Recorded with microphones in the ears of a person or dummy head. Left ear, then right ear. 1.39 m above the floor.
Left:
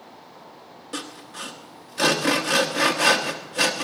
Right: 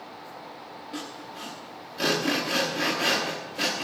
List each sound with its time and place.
0.9 s sawing: 40° left (ahead or behind), 1.0 m